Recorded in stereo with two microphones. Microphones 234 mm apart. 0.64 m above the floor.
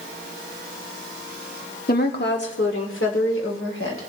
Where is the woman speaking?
40° left (ahead or behind), 1.1 m; by 4.1 s 65° left (ahead or behind), 2.5 m.